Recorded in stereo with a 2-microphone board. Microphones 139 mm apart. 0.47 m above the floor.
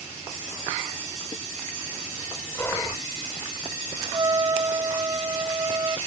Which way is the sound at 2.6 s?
15° left (ahead or behind).